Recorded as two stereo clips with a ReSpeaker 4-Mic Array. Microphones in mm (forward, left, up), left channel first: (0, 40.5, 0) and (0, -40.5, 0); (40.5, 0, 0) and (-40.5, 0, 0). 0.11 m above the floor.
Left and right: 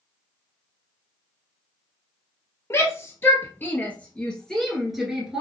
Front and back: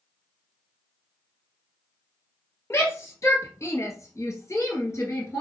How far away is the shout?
About 2 m.